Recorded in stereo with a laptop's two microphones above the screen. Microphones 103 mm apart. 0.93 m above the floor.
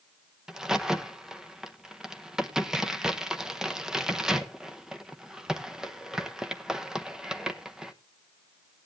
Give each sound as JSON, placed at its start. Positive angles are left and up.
{"t": 0.5, "sound": "a crack", "side_deg": -5, "distance_m": 0.9}